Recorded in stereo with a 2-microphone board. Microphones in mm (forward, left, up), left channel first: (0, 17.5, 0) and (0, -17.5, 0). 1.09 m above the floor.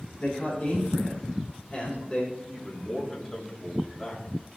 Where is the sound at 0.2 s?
20° left (ahead or behind), 3 m.